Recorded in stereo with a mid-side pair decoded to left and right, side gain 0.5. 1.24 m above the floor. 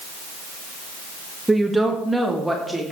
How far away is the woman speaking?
About 1.9 m.